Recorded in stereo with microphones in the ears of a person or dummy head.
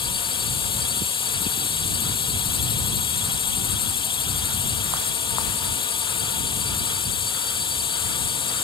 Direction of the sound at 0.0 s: 25° left (ahead or behind).